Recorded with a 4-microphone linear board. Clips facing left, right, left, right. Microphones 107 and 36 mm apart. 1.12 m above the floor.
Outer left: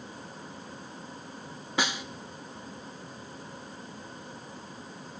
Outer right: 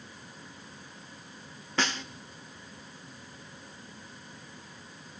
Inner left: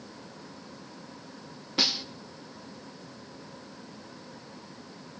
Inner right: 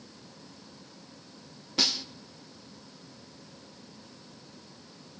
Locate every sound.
1.8 s a snare drum: 10° left (ahead or behind), 0.8 m